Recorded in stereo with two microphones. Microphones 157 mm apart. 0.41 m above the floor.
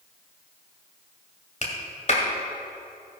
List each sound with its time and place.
1.6 s a clap: 50° left (ahead or behind), 1.7 m